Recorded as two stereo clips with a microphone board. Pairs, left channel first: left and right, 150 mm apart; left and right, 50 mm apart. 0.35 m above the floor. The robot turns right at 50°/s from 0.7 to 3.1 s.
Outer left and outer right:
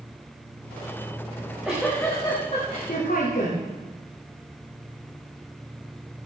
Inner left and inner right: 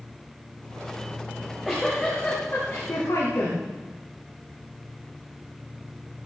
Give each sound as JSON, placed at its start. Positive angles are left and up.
{"t": 1.4, "sound": "a giggle", "azimuth_deg": -20, "distance_m": 6.5}